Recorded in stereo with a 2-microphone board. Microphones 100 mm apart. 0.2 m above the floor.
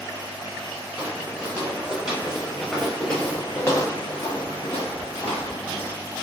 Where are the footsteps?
20° right (ahead or behind), 1.9 m; by 5.9 s 85° left, 1.3 m.